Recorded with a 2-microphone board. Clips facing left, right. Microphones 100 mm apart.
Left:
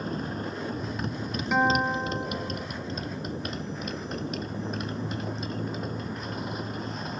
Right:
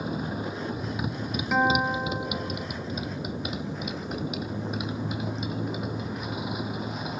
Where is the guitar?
Centre (ahead or behind).